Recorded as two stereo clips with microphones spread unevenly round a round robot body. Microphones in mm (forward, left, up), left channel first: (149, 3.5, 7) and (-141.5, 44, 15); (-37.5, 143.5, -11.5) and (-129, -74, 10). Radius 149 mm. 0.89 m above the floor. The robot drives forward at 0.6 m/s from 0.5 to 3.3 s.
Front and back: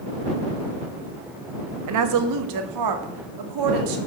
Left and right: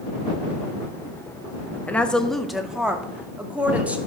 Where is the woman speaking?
150° left, 1.3 m; by 4.0 s 160° left, 2 m.